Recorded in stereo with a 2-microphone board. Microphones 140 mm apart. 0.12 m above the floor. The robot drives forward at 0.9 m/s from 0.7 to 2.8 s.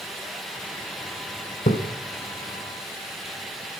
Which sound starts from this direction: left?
A splash, at 1.7 s.